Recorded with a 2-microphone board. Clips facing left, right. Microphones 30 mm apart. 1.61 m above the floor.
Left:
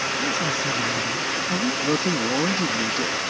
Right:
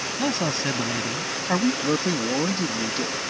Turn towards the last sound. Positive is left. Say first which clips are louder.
# left 1 dB
turn(degrees=0)  # may be behind; listen again after turning